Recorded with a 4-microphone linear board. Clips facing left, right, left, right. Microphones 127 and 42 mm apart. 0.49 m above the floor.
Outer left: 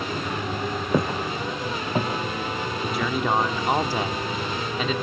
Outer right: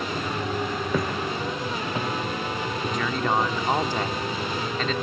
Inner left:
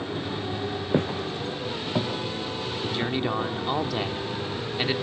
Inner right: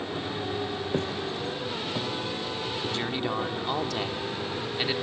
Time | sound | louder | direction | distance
0.9 | footsteps | outer left 4 dB, inner left 5 dB | 20° left (ahead or behind) | 2.5 m
2.8 | a man speaking | outer left 2 dB, inner left 4 dB | 10° left (ahead or behind) | 1.0 m